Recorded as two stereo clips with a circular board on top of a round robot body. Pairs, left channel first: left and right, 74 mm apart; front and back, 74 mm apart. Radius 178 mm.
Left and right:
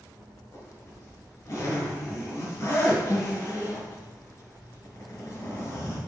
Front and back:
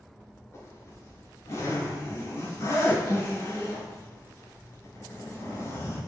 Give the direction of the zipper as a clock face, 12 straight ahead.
10 o'clock.